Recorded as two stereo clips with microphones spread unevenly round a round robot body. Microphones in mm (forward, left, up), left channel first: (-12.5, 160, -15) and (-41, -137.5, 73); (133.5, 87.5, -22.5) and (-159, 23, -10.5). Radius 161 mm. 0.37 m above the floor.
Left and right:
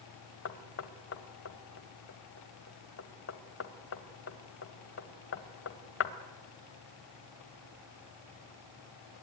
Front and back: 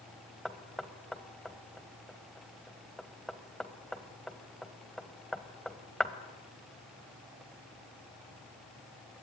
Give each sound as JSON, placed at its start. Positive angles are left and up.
{"t": 0.5, "sound": "knocking", "azimuth_deg": 100, "distance_m": 1.4}